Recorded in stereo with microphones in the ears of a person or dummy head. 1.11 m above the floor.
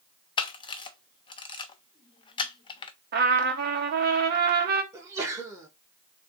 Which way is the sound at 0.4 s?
20° left (ahead or behind).